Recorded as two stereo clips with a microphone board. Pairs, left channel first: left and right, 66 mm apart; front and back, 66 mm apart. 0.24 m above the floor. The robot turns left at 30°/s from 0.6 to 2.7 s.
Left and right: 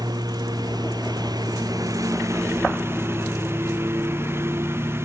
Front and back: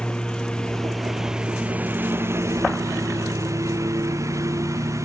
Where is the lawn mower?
80° right; by 5.0 s 140° right.